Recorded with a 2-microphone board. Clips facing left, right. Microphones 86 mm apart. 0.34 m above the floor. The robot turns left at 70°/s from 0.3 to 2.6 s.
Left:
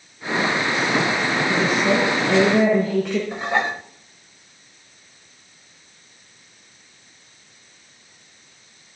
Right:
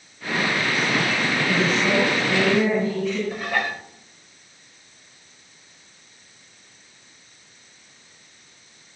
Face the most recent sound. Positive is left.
turn(degrees=25)  # may be behind; listen again after turning